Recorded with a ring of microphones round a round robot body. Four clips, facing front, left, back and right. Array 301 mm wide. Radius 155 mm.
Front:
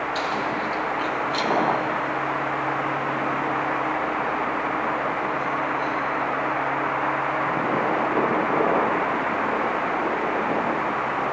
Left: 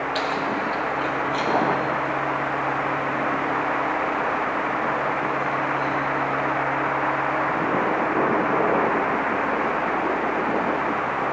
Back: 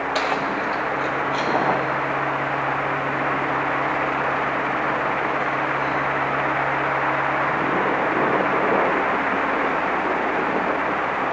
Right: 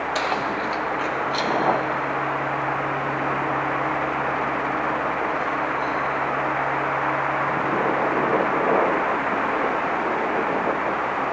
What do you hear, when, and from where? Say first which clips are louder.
0.1 s keys jangling: right 1 dB, back 4 dB; 165° right, 0.6 m; by 5.9 s 25° right, 4.5 m